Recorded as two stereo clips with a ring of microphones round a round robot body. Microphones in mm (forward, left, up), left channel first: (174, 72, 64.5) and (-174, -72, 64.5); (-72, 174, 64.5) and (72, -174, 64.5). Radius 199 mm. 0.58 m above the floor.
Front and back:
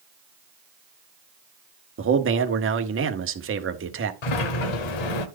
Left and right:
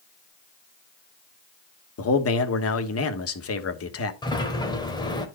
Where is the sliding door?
35° left, 1.4 m.